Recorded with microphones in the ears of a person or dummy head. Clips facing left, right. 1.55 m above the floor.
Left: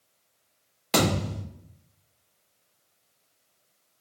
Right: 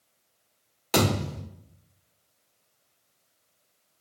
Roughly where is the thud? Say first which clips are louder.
Even; centre.